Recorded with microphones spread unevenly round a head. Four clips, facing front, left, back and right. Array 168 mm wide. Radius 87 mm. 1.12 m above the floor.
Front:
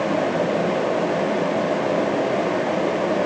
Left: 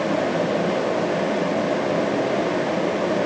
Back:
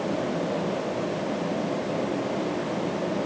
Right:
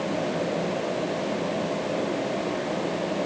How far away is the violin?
No violin in this recording.